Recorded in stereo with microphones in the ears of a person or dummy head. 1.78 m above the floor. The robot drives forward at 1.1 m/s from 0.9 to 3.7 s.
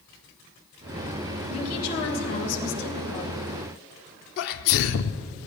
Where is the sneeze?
55° left (ahead or behind), 0.6 m.